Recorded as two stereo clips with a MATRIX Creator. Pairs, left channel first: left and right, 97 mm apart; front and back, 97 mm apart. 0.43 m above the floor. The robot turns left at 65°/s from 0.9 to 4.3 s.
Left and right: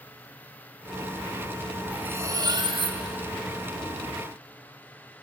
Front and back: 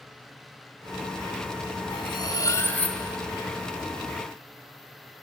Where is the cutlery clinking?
10° right, 1.4 m; by 3.0 s 85° right, 1.4 m.